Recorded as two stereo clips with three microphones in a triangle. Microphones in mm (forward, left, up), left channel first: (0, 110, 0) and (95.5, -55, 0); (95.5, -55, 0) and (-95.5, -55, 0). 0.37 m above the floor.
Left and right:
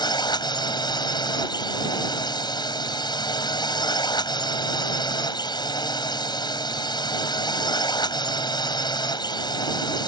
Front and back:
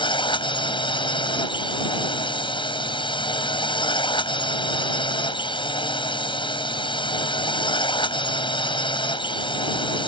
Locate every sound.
0.0 s a drone: 55° left